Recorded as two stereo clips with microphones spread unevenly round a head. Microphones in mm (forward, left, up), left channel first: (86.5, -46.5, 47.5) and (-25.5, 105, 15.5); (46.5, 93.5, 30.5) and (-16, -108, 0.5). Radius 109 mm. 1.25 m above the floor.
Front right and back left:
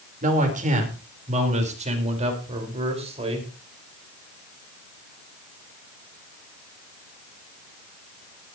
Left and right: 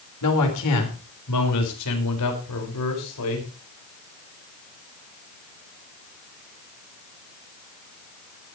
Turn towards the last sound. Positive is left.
turn(degrees=65)